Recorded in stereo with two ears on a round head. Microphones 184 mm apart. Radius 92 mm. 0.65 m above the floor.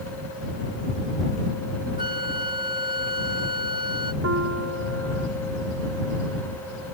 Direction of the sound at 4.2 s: 70° right (ahead or behind).